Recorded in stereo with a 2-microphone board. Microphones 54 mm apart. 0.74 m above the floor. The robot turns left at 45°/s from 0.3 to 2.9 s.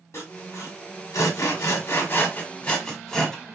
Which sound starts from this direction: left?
Sawing, at 0.1 s.